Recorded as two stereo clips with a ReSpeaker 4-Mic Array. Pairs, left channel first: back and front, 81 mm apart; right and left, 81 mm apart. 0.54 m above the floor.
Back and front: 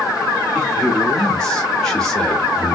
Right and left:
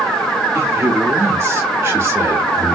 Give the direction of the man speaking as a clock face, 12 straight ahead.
8 o'clock.